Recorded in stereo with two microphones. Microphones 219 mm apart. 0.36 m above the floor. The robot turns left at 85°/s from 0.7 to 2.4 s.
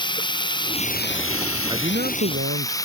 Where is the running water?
160° left; by 2.9 s 15° left.